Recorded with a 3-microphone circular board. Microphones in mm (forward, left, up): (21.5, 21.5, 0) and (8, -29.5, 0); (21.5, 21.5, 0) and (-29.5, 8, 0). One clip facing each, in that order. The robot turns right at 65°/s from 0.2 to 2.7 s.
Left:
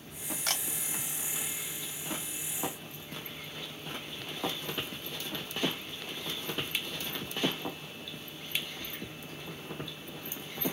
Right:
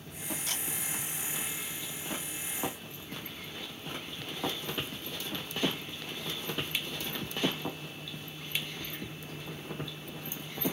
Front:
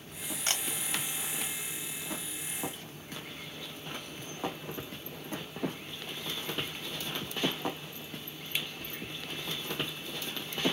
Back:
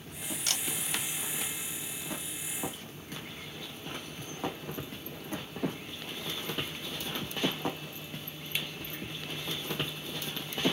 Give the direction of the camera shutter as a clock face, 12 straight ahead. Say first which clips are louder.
Left 7 dB, front 3 dB; 10 o'clock.